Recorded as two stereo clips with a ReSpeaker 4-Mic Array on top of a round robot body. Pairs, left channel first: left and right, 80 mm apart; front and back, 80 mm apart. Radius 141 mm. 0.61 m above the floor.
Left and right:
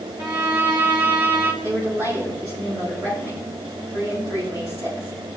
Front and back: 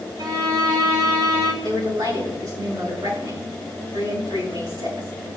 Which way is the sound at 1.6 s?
140° right.